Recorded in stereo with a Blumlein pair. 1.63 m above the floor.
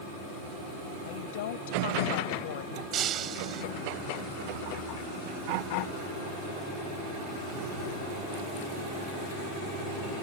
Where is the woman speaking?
55° left.